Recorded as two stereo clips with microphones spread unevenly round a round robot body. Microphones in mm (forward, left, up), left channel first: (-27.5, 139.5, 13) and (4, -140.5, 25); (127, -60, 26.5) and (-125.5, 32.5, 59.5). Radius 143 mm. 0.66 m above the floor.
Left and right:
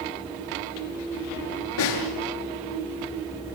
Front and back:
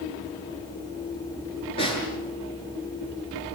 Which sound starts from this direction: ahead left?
A snare drum, at 1.8 s.